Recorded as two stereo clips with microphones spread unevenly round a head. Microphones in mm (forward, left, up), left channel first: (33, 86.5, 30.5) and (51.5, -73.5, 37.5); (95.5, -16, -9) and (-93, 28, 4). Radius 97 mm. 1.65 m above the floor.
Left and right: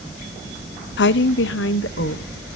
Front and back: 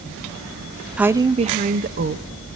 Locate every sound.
1.0 s a woman speaking: 80° left, 0.6 m; by 2.2 s 125° left, 1.3 m